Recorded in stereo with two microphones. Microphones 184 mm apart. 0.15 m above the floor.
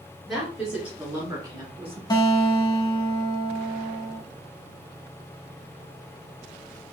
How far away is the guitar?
About 0.7 m.